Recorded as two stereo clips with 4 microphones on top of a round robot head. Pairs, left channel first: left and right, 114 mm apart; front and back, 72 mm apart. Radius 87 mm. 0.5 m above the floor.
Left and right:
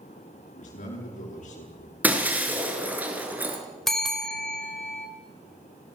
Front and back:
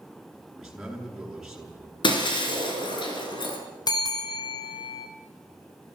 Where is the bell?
5° left, 3 m.